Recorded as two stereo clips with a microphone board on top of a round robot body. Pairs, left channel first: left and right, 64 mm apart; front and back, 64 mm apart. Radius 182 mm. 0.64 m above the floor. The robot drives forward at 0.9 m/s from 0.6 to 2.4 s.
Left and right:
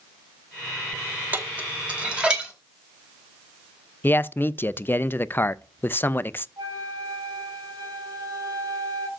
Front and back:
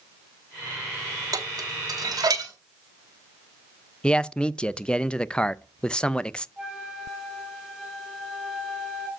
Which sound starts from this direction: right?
A flute, at 6.6 s.